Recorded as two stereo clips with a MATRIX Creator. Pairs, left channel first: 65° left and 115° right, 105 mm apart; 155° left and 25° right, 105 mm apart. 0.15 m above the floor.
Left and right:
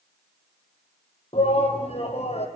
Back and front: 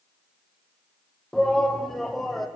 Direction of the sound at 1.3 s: 70° left.